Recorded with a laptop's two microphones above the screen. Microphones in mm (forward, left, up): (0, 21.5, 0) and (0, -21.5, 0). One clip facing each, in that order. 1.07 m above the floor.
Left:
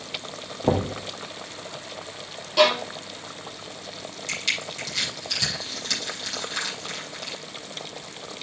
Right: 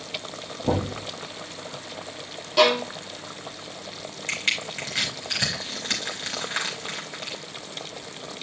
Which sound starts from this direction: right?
Crushing, at 4.3 s.